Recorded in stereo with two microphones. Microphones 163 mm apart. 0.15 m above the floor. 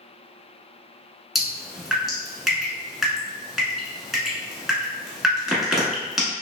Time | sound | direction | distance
1.4 | dripping | centre (ahead or behind) | 1.0 m